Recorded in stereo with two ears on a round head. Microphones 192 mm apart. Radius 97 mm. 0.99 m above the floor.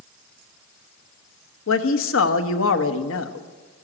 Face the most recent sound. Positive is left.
turn(degrees=65)  # may be behind; listen again after turning